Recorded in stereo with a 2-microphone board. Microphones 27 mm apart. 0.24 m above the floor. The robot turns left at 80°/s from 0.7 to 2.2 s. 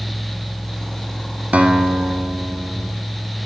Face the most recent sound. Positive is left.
turn(degrees=-135)